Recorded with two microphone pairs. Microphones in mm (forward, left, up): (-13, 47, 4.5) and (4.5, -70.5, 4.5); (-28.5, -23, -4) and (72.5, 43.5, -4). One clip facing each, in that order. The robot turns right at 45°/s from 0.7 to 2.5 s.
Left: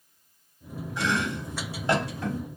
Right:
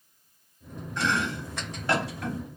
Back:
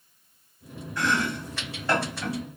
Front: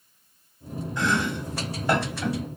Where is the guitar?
I don't hear a guitar.